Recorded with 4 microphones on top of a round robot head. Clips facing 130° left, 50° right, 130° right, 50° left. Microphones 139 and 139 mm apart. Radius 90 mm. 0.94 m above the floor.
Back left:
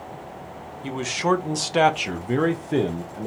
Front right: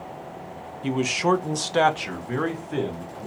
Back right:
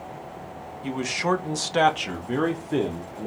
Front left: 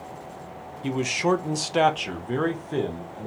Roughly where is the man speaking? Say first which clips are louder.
Front right 1 dB, front left 2 dB; ahead.